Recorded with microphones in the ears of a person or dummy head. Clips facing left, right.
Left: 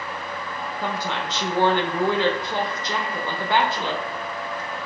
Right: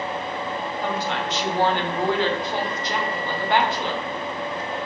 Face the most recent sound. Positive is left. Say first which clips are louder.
# even
turn(degrees=70)  # may be behind; listen again after turning